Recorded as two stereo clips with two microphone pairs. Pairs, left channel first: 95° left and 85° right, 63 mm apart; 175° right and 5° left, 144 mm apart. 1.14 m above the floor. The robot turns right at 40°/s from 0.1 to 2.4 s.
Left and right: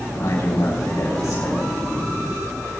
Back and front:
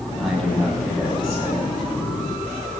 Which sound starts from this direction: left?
A man speaking, at 0.2 s.